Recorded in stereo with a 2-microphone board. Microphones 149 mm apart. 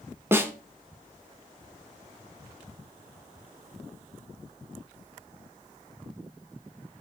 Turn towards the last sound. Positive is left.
turn(degrees=-15)  # may be behind; listen again after turning